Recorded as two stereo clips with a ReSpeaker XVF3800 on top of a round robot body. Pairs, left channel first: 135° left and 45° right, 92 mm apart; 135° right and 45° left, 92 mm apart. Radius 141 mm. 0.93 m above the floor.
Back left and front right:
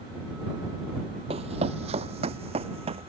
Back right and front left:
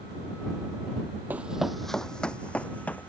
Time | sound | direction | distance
1.3 | running footsteps | 30° right | ?